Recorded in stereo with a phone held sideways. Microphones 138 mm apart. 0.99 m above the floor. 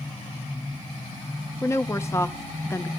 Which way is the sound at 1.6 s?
20° left (ahead or behind).